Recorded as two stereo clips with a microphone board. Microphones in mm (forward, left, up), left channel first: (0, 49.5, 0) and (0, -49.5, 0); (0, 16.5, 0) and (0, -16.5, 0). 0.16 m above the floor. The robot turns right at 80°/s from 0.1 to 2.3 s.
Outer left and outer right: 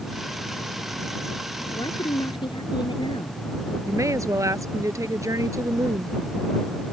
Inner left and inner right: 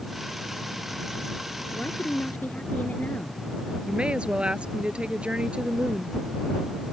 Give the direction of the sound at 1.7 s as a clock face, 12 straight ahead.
10 o'clock.